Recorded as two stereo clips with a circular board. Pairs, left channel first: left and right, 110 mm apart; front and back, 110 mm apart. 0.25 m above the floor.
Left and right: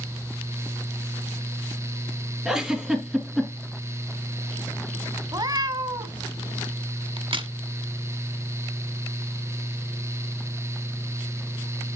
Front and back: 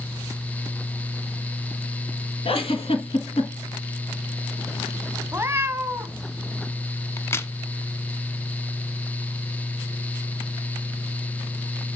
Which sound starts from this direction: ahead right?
A crack, at 7.2 s.